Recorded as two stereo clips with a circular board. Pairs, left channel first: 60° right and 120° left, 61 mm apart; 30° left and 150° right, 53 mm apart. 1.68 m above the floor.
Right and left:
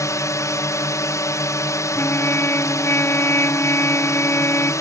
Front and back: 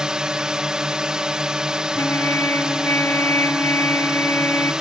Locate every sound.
0.0 s a drone: 75° right
1.9 s a trumpet: 10° right